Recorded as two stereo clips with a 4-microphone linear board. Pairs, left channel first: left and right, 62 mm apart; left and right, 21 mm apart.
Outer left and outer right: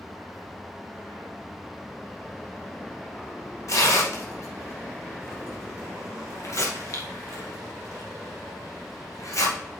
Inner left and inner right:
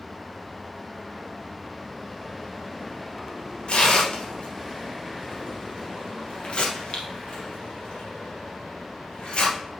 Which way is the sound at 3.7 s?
55° left (ahead or behind).